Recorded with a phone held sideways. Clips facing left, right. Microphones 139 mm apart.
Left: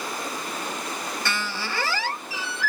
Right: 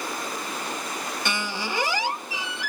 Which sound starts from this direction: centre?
A squeak, at 1.2 s.